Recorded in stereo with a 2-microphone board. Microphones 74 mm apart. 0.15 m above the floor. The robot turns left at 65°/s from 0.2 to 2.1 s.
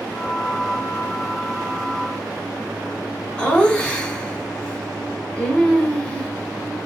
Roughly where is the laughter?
Centre.